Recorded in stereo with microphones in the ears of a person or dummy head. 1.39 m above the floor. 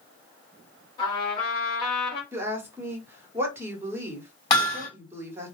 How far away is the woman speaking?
About 1.0 m.